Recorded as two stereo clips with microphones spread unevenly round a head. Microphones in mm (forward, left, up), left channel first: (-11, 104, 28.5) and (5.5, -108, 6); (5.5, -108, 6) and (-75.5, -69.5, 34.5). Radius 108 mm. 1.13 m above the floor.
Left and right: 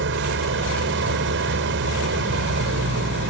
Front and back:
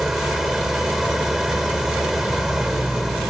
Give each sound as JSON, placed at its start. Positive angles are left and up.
{"t": 0.0, "sound": "an engine running", "azimuth_deg": -120}